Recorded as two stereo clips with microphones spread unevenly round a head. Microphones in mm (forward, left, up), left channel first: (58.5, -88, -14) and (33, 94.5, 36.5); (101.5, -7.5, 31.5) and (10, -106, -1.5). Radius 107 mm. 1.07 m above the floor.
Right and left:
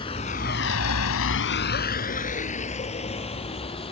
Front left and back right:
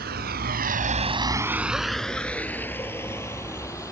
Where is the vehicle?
155° right; by 3.9 s 20° right.